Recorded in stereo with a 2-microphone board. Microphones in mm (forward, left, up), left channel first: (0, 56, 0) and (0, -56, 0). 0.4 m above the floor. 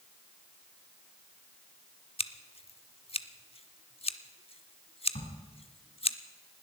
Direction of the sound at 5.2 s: 75° left (ahead or behind).